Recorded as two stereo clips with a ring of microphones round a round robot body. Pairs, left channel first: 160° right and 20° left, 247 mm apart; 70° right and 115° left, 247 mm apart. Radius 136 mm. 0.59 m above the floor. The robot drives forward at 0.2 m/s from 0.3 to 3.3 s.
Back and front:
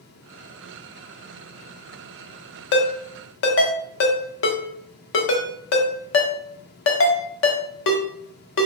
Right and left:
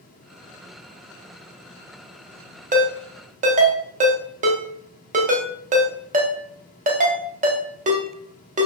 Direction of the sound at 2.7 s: 170° left.